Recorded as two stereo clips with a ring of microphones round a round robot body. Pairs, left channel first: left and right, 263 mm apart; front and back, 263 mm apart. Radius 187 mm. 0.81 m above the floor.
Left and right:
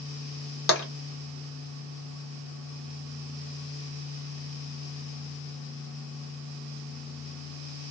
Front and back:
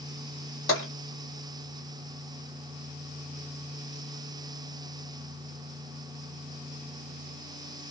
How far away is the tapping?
About 1.5 m.